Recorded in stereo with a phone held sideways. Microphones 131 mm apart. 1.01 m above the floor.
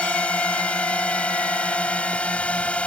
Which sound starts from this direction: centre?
A drone, at 0.0 s.